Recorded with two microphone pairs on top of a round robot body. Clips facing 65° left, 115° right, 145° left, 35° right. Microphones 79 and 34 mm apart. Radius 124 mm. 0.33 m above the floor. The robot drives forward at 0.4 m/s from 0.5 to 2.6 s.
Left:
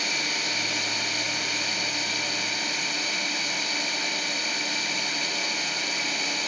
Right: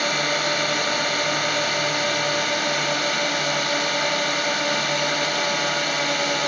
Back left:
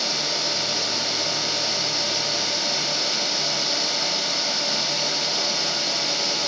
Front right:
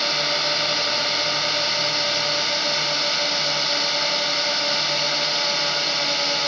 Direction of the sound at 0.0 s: 95° right.